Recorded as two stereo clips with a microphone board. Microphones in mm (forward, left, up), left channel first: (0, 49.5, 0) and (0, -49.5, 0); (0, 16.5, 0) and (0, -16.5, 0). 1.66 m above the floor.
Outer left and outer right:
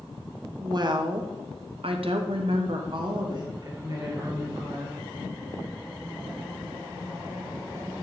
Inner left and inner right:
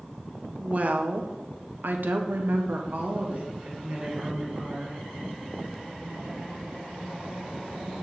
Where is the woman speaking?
40° right (ahead or behind), 1.0 m; by 5.0 s 30° right (ahead or behind), 1.9 m.